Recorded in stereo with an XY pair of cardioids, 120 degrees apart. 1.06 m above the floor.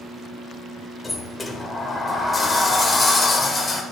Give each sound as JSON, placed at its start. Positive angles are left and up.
{"t": 1.0, "sound": "a sliding door", "azimuth_deg": 20, "distance_m": 3.0}